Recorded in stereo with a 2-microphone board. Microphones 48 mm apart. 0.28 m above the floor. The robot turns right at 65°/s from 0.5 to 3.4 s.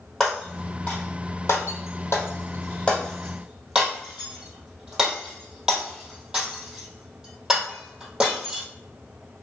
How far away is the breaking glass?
About 2 m.